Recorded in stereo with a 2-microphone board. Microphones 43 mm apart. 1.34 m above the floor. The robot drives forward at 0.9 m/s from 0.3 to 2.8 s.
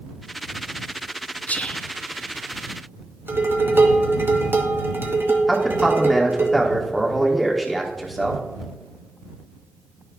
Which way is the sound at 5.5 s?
Centre (ahead or behind).